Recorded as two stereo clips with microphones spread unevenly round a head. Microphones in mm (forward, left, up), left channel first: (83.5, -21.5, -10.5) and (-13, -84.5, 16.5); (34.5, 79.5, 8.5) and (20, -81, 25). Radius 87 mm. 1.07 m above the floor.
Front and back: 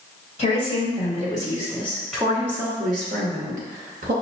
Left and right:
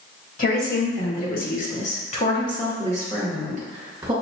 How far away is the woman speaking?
About 1.6 m.